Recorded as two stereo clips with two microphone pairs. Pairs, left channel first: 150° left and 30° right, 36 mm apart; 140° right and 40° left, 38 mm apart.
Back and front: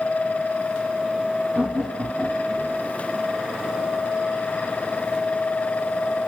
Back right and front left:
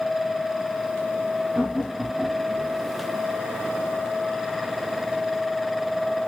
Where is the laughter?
10° right, 1.8 m; by 2.8 s 75° right, 2 m.